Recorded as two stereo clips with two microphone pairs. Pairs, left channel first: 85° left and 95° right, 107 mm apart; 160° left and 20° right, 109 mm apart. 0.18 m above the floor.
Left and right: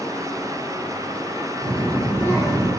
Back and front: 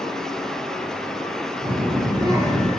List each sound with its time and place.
1.6 s a child speaking: 5° left, 1.7 m; by 2.7 s 30° left, 1.8 m